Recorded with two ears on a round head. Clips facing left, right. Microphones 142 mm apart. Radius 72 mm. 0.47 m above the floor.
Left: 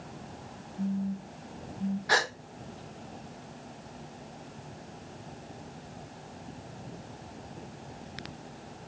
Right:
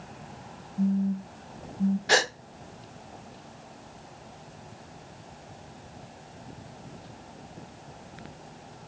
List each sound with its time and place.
0.8 s a phone buzzing: 70° right (ahead or behind), 1.4 m
2.1 s a gasp: 30° right (ahead or behind), 0.6 m